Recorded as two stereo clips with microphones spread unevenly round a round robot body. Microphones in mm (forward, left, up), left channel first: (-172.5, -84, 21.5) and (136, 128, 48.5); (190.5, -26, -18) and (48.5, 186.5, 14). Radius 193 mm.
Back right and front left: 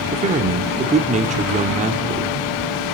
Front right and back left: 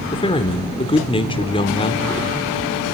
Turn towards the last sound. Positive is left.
turn(degrees=-30)